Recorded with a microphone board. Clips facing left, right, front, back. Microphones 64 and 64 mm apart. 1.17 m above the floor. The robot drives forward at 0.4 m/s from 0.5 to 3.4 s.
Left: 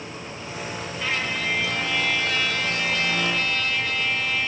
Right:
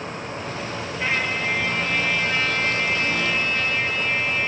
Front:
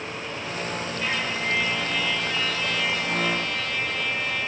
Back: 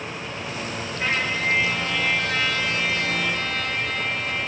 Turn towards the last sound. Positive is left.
turn(degrees=-150)